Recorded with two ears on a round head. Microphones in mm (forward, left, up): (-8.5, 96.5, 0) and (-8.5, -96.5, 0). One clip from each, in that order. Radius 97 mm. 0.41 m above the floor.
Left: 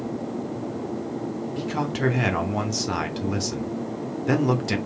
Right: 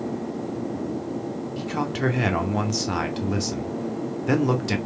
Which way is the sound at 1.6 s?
Centre (ahead or behind).